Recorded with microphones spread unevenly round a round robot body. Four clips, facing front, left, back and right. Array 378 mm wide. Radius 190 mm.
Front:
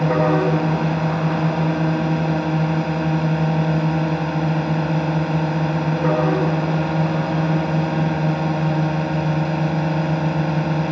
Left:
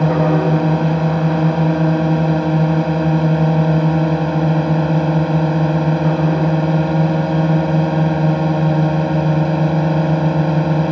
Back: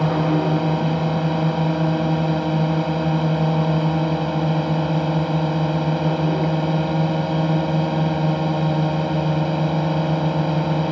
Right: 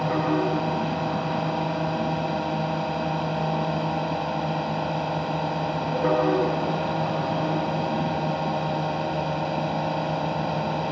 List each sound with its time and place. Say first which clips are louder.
0.0 s a drone: left 8 dB, front 2 dB; 90° left